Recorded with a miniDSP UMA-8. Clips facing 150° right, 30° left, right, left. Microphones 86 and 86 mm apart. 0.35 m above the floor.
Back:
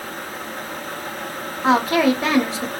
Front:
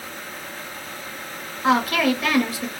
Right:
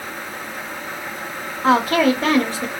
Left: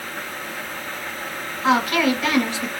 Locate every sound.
1.6 s a woman speaking: 105° right, 1.2 m